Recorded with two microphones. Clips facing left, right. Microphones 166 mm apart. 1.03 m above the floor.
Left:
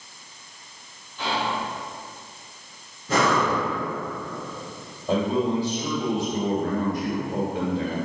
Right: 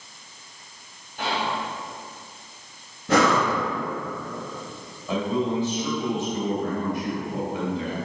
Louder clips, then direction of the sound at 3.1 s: Right 2 dB; 70° right (ahead or behind).